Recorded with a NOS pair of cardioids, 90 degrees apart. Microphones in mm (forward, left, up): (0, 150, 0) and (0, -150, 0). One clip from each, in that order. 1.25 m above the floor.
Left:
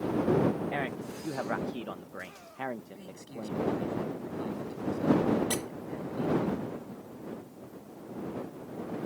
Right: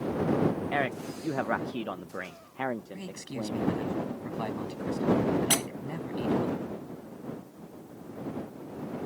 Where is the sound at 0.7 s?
20° right.